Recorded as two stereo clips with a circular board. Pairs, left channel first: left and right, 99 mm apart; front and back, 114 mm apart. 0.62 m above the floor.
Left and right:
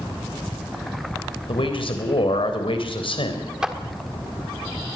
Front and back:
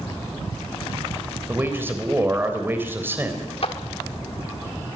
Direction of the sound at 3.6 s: 10° right.